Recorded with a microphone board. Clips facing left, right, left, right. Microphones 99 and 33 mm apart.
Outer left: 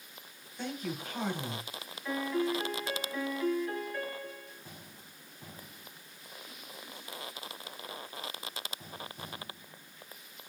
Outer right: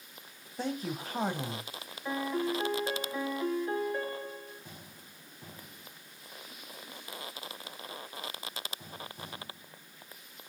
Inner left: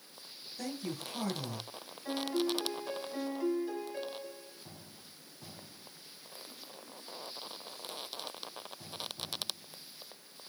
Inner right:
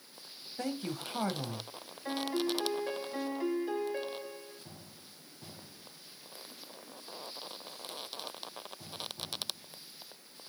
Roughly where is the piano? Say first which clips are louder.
Even, even; right.